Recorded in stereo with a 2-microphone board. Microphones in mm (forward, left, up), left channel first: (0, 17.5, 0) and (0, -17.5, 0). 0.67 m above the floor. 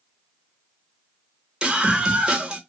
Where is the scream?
25° right (ahead or behind), 1.8 m.